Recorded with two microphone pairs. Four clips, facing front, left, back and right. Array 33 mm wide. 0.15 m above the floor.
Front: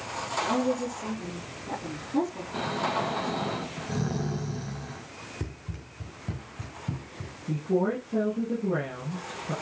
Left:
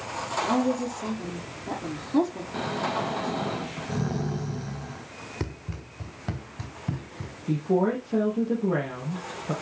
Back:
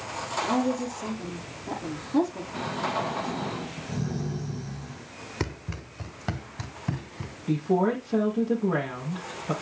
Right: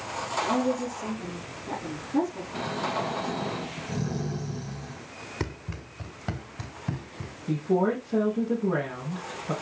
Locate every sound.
0.4 s a woman speaking: 125° left, 5 m
2.5 s snoring: 55° left, 3 m
5.4 s running footsteps: 165° right, 2 m; by 7.4 s 175° right, 4 m
7.5 s a woman speaking: 155° left, 3.5 m